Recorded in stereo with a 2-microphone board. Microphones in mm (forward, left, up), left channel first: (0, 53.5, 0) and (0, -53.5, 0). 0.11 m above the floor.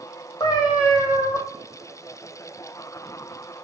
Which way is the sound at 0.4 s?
35° left (ahead or behind).